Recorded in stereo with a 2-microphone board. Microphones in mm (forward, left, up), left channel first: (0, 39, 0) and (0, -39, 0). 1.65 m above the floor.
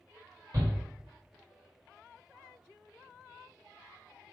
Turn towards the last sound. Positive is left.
turn(degrees=-45)  # may be behind; listen again after turning